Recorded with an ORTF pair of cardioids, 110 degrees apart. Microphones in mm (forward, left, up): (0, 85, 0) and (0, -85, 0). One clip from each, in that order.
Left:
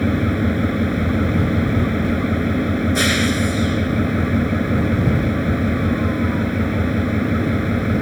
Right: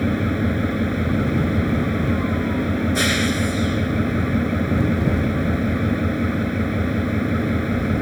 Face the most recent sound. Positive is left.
turn(degrees=5)